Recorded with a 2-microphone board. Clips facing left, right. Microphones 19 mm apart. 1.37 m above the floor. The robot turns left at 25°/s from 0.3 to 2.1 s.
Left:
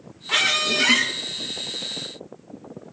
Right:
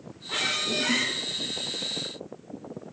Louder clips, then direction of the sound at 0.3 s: Left 7 dB; 50° left (ahead or behind).